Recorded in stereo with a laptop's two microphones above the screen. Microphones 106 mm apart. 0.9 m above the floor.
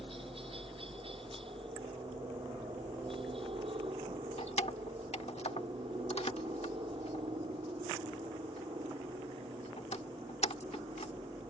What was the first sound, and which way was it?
A helicopter, 55° right (ahead or behind).